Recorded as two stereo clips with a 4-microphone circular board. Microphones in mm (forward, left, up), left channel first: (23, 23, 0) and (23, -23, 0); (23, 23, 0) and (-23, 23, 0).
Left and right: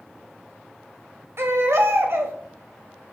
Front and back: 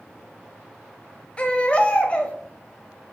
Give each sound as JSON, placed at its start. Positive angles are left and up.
{"t": 1.4, "sound": "a baby crying", "azimuth_deg": -65, "distance_m": 1.2}